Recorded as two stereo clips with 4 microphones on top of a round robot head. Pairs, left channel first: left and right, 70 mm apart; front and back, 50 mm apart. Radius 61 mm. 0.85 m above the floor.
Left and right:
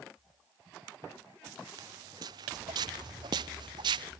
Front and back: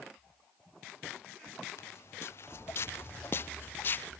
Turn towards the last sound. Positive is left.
turn(degrees=-65)